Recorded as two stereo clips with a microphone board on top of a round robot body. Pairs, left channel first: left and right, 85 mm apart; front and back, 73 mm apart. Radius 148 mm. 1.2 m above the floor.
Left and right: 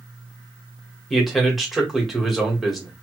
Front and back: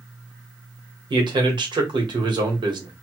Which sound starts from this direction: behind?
A man speaking, at 1.1 s.